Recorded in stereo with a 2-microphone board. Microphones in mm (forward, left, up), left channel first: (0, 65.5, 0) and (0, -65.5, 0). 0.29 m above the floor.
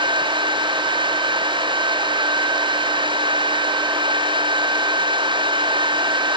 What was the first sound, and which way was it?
Only background noise.